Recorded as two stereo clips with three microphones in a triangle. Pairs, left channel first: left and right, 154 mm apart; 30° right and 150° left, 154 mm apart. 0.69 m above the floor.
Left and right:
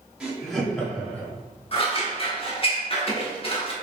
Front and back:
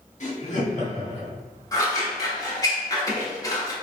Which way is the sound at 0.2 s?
5° right.